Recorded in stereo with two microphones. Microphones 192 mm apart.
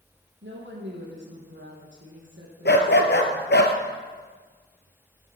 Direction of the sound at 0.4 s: 70° right (ahead or behind).